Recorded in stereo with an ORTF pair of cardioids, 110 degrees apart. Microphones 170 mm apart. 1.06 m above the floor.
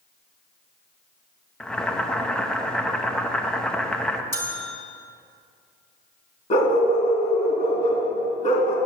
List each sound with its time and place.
1.6 s boiling: 5° left, 0.8 m
4.3 s a bell: 15° left, 2.5 m
6.5 s a dog barking: 45° left, 3 m